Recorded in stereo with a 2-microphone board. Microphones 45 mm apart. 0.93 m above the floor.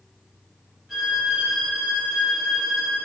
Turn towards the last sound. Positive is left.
turn(degrees=-5)  # may be behind; listen again after turning